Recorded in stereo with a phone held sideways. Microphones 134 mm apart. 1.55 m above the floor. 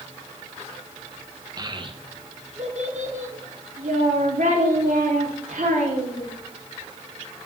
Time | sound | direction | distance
1.6 | a child speaking | 30° right (ahead or behind) | 1.3 m